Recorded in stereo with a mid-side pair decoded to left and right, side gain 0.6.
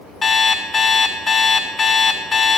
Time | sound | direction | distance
0.2 | an alarm clock | 30° left | 1.8 m